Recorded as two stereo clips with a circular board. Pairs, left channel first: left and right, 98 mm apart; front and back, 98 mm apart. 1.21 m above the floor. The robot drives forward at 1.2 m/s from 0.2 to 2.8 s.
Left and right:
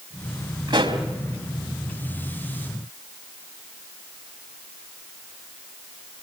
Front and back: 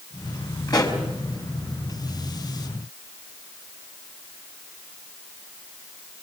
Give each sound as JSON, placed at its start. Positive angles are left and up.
{"t": 0.7, "sound": "a pop", "azimuth_deg": -50, "distance_m": 4.0}